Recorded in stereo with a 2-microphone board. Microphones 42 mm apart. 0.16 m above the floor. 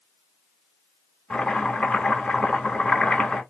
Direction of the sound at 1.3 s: 25° left (ahead or behind).